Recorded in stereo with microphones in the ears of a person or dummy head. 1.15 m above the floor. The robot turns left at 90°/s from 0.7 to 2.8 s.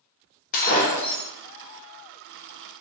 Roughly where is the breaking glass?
Ahead left.